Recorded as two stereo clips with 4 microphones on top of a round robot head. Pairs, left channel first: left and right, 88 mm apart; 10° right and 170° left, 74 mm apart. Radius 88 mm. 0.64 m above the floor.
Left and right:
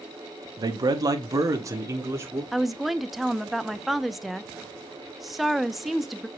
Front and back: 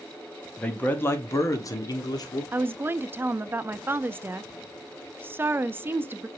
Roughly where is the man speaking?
Right.